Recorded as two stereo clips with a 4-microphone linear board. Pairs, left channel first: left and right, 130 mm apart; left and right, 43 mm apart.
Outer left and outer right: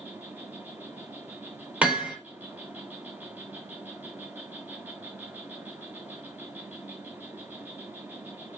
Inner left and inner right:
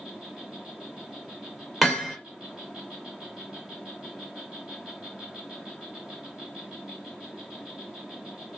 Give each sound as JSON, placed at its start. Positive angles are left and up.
{"t": 0.0, "sound": "an insect", "side_deg": -15, "distance_m": 1.2}
{"t": 1.8, "sound": "hammering", "side_deg": -10, "distance_m": 3.5}